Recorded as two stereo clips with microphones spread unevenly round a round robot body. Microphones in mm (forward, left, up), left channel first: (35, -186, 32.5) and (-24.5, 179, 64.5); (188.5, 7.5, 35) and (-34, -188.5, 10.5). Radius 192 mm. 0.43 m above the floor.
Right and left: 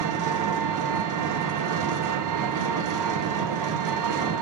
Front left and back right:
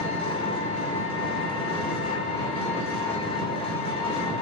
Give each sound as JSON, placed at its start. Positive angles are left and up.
{"t": 0.0, "sound": "an engine running", "azimuth_deg": 115, "distance_m": 0.9}